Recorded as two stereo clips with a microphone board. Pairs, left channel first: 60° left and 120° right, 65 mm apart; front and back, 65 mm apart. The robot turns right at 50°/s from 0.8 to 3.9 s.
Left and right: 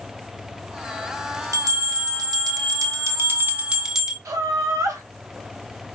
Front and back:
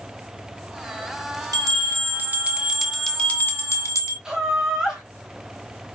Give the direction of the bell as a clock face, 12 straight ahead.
5 o'clock.